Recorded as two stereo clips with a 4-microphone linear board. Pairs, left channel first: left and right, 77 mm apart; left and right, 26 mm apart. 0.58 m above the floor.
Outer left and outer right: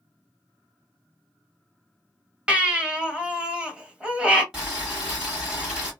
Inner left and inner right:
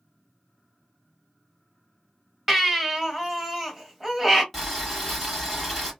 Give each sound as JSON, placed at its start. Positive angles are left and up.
{"t": 2.5, "sound": "a baby crying", "side_deg": -15, "distance_m": 0.9}
{"t": 4.5, "sound": "boiling", "side_deg": -10, "distance_m": 1.6}